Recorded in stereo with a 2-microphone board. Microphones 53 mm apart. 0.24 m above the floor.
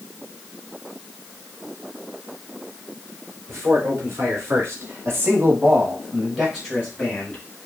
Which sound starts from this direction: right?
A man speaking, at 3.5 s.